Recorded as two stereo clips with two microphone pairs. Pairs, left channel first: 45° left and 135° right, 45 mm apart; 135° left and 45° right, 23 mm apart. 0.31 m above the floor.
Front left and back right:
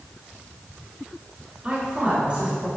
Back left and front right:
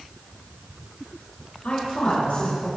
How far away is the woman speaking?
About 4.5 m.